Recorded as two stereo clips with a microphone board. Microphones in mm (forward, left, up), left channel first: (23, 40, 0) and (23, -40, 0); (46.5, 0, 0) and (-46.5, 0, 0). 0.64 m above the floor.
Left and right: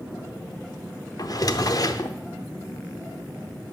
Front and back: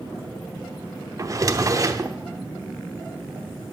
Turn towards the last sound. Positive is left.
turn(degrees=130)